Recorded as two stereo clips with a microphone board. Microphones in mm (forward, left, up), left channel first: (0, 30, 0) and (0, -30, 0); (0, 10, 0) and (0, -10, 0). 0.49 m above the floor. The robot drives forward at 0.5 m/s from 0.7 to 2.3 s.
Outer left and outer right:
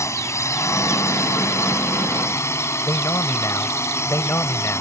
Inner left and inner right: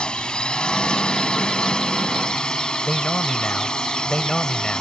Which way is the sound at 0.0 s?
55° left (ahead or behind).